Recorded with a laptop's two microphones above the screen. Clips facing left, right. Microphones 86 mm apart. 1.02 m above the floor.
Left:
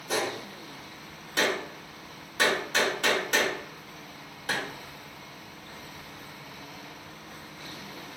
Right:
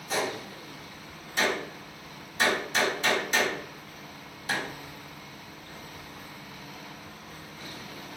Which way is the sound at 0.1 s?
70° left (ahead or behind).